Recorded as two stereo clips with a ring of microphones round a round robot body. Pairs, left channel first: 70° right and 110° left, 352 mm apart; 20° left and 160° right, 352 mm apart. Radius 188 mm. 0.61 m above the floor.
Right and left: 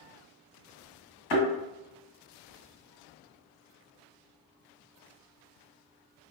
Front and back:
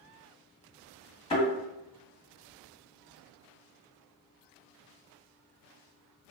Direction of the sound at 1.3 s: 55° right.